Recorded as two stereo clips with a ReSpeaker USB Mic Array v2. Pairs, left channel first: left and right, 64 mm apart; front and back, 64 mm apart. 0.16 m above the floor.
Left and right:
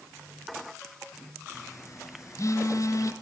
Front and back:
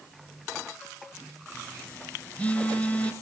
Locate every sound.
1.5 s a phone buzzing: 70° left, 1.3 m